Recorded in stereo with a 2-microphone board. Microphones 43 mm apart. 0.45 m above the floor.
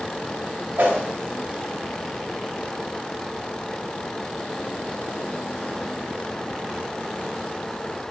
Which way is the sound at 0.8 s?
50° right (ahead or behind).